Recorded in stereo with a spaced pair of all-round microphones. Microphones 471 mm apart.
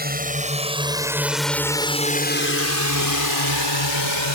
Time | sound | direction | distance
0.0 | a drone | 20° right (ahead or behind) | ?